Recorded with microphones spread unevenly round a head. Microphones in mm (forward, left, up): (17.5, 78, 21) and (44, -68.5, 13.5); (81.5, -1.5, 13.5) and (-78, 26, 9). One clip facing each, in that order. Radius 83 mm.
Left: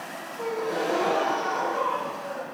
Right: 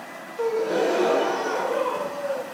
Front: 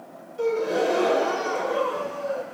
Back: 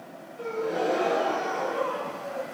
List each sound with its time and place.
0.4 s a gasp: 50° right, 0.8 m